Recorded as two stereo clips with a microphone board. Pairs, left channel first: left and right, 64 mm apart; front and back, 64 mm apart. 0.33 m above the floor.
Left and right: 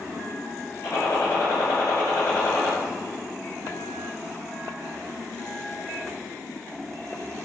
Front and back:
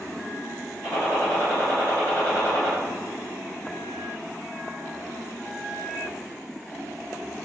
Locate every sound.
0.8 s a gunshot: 60° left, 1.3 m